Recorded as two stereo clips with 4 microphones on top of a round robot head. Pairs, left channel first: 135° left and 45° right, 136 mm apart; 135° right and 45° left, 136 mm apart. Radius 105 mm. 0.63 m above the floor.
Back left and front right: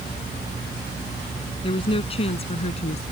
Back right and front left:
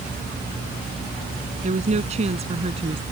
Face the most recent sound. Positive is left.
turn(degrees=95)